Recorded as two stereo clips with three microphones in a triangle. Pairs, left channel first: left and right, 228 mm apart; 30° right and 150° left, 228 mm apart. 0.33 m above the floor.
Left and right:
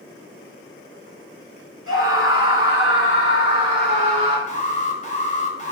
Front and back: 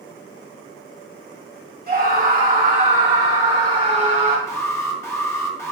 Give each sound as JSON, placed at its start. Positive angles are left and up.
{"t": 1.9, "sound": "a scream", "azimuth_deg": 105, "distance_m": 3.5}
{"t": 4.5, "sound": "an alarm", "azimuth_deg": 45, "distance_m": 1.5}